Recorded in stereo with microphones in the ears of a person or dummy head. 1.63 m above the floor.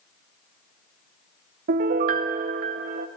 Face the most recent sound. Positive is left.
turn(degrees=-45)  # may be behind; listen again after turning